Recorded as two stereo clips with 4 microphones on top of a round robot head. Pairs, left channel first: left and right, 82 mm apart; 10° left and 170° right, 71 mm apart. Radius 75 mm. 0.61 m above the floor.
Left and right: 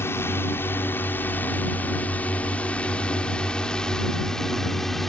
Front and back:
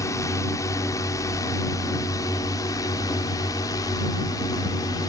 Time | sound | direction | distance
0.0 | a drone | 35° left | ?